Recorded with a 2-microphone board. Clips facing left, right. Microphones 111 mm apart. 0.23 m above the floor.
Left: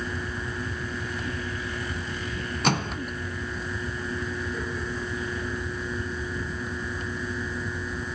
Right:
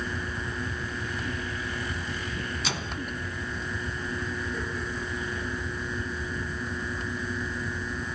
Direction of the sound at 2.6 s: 55° left (ahead or behind).